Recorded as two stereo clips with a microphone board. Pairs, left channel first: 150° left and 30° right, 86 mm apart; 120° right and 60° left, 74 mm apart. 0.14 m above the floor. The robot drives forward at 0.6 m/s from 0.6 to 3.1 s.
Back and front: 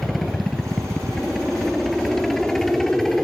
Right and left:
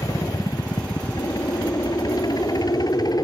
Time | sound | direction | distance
0.0 | a helicopter | 125° right | ?